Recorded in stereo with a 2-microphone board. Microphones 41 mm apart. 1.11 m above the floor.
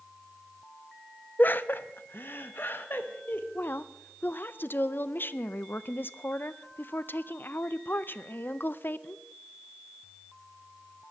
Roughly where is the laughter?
Left.